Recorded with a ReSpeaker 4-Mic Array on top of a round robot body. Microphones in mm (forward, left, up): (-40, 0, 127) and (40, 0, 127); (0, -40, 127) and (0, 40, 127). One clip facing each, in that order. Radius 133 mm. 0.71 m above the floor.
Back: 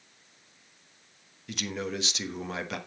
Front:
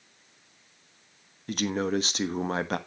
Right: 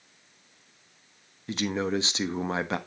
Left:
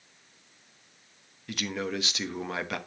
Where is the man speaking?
35° right, 1.3 m.